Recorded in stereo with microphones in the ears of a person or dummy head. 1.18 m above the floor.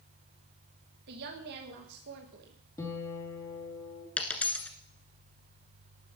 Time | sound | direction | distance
1.1 | a woman speaking | 55° right (ahead or behind) | 1.2 m
2.8 | a guitar | 15° left (ahead or behind) | 2.5 m
4.2 | a dropped coin | 5° left (ahead or behind) | 1.5 m